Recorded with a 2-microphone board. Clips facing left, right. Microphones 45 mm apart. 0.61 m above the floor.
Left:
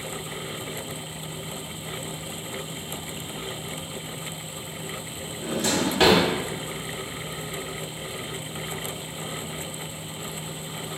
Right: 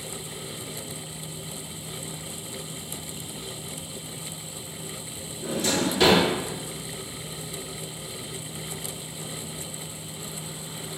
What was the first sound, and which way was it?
A drawer, 50° left (ahead or behind).